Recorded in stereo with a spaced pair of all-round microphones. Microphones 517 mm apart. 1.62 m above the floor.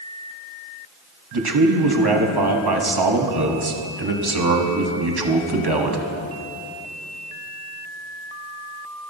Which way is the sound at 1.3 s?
50° right (ahead or behind).